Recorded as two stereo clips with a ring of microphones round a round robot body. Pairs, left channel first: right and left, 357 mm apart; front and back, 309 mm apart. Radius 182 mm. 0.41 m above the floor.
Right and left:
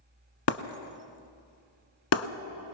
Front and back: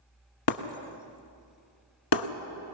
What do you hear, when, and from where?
0.5 s breaking glass: 35° right, 1.1 m